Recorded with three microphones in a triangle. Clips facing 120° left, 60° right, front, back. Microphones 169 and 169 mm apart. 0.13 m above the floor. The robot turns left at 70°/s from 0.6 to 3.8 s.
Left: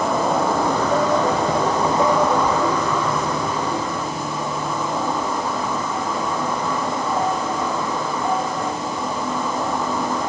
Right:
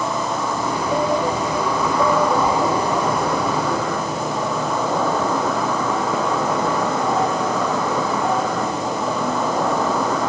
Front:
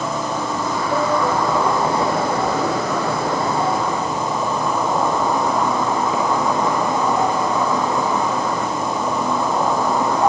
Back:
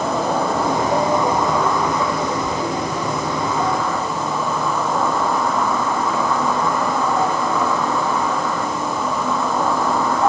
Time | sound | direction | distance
0.0 | an insect | 150° left | 1.5 m